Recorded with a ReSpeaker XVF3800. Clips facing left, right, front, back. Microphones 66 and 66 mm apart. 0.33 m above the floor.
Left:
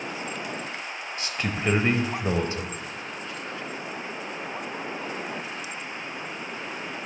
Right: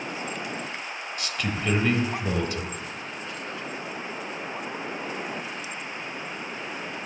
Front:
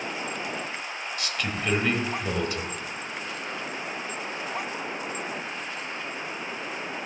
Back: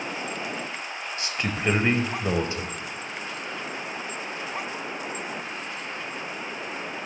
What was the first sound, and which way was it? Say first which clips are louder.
A man speaking: left 1 dB, back 2 dB; 135° left.